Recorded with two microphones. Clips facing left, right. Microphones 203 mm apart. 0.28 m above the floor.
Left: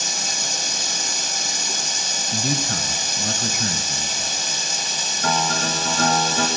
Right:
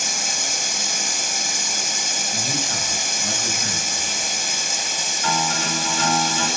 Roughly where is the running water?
Left.